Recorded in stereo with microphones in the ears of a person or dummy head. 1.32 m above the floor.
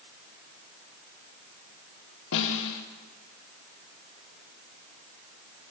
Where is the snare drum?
65° left (ahead or behind), 1.2 m.